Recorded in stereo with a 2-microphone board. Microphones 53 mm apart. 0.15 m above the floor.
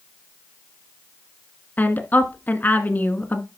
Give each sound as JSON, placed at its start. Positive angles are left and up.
{"t": 1.8, "sound": "a woman speaking", "side_deg": 35, "distance_m": 1.5}